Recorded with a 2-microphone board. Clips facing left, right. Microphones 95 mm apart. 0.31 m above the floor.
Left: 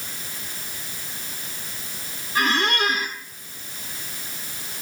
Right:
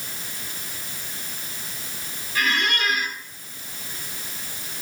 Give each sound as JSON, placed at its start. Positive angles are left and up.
{"t": 2.4, "sound": "a squeak", "side_deg": 30, "distance_m": 1.7}